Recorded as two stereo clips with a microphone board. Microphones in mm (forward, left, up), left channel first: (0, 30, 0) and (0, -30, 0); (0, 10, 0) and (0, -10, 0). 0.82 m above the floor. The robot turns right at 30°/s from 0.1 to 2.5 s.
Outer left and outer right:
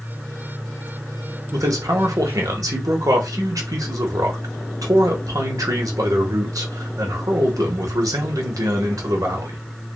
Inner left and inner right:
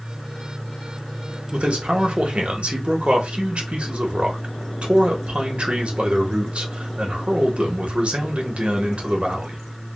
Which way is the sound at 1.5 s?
65° right (ahead or behind).